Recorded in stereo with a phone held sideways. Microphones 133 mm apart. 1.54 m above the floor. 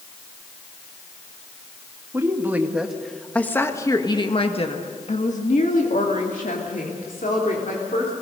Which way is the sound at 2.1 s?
20° right (ahead or behind).